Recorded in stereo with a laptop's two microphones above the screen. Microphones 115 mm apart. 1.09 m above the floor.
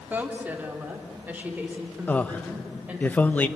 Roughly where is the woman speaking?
Centre.